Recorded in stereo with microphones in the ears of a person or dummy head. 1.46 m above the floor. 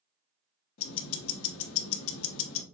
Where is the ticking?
85° left, 1.0 m.